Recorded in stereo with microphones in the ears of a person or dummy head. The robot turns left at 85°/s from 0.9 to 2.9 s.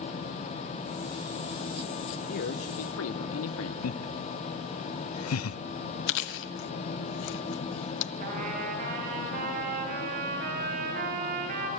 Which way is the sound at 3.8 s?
85° left.